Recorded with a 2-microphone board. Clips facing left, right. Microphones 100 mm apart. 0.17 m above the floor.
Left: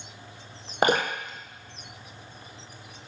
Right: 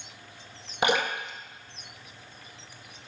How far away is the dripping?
About 0.9 m.